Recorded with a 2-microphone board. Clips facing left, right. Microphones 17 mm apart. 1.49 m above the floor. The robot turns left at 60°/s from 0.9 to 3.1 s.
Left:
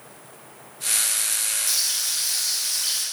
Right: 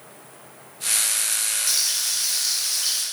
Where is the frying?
35° right, 0.6 m; by 3.0 s 115° right, 0.6 m.